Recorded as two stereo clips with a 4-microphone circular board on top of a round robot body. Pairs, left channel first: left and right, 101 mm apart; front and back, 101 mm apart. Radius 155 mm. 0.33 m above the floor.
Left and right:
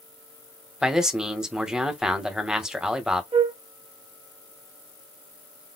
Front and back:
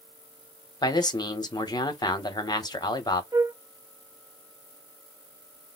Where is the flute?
125° right, 0.6 m.